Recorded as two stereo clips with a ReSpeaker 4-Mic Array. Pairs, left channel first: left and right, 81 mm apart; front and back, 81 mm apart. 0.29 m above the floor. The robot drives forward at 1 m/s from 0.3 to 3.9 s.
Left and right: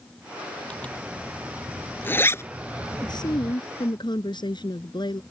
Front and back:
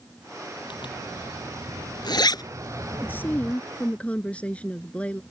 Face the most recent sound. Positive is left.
turn(degrees=75)